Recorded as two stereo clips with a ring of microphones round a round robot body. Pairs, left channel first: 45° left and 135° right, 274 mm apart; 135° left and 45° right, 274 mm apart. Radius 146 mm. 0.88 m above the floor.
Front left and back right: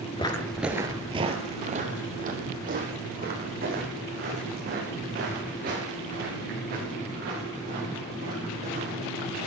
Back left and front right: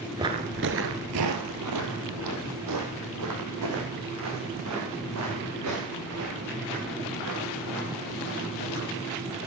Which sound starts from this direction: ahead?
Footsteps, at 0.2 s.